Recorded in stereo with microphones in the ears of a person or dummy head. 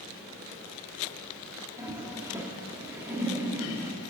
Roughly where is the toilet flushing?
Centre.